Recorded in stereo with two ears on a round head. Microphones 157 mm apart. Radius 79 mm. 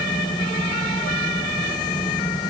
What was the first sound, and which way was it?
Only background noise.